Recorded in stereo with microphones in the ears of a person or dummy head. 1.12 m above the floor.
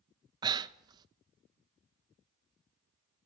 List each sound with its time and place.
0.4 s breathing: 20° right (ahead or behind), 0.7 m